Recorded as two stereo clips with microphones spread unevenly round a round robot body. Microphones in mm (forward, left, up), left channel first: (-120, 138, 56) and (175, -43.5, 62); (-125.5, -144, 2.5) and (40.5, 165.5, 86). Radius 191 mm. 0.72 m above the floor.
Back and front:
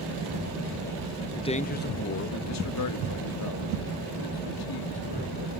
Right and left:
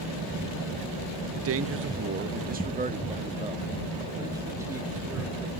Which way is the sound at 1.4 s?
85° left.